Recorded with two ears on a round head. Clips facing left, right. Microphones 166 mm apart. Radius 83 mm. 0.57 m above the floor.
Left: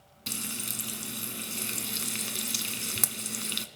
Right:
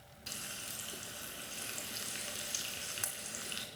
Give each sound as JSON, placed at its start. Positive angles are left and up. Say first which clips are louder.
{"t": 0.3, "sound": "frying", "louder": "left 11 dB", "side_deg": 70, "distance_m": 1.0}